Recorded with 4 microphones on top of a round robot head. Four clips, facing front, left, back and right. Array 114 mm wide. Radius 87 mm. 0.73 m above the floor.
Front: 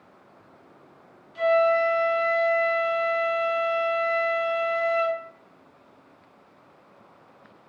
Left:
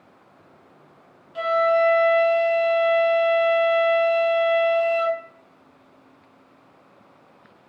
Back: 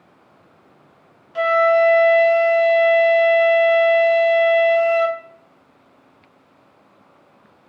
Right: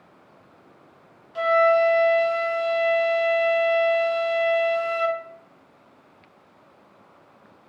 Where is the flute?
170° right, 2 m.